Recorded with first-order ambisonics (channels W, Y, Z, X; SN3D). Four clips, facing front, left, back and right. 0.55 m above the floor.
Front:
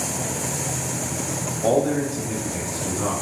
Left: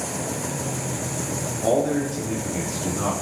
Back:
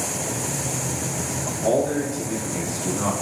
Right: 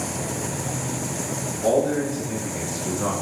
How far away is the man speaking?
About 1.3 m.